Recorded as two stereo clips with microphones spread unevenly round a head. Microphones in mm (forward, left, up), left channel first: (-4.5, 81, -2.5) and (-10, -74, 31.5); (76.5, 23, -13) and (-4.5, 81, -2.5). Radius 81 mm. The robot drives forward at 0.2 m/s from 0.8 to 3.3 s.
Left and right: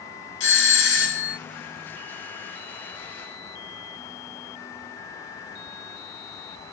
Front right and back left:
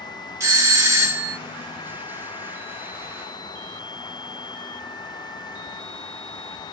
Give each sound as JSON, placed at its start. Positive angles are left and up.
{"t": 0.4, "sound": "a doorbell", "azimuth_deg": 80, "distance_m": 2.0}